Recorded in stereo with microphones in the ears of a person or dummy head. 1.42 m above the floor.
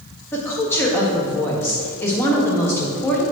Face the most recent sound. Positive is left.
turn(degrees=10)  # may be behind; listen again after turning